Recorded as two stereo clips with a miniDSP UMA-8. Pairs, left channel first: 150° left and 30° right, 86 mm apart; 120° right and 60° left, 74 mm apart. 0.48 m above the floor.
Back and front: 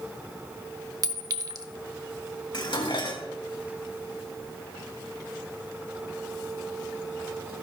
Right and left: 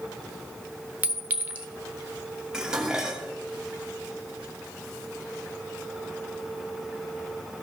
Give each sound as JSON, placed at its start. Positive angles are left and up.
{"t": 1.0, "sound": "a clink", "azimuth_deg": -5, "distance_m": 0.9}
{"t": 2.5, "sound": "dishes clattering", "azimuth_deg": 140, "distance_m": 2.0}